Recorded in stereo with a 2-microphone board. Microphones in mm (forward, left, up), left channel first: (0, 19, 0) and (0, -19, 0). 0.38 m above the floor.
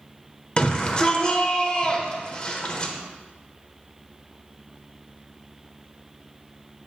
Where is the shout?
25° left (ahead or behind), 1.2 m.